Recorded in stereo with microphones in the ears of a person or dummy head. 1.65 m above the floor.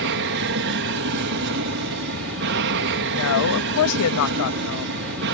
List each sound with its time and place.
0.0 s an aircraft: 60° right (ahead or behind)
3.1 s a woman speaking: 75° left (ahead or behind)